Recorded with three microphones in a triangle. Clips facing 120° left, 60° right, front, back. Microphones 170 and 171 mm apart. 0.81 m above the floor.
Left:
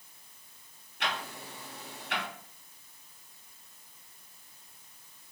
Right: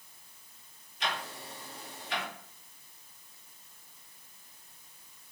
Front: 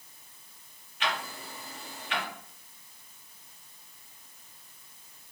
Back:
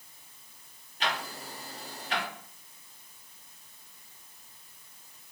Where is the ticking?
130° left, 1.2 m.